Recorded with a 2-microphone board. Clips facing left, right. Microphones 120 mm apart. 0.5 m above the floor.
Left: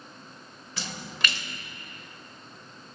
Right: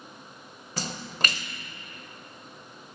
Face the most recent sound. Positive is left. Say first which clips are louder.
# right 2 dB
turn(degrees=-40)  # may be behind; listen again after turning